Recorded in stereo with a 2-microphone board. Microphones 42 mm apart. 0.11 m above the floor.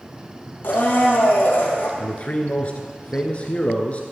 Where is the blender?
60° left (ahead or behind), 2.5 m.